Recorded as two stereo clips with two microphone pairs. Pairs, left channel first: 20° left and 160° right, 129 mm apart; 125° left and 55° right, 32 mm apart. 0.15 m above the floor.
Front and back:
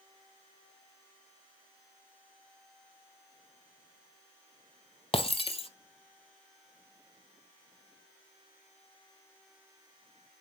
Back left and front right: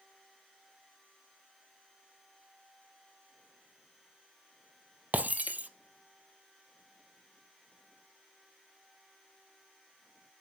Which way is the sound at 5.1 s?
25° right.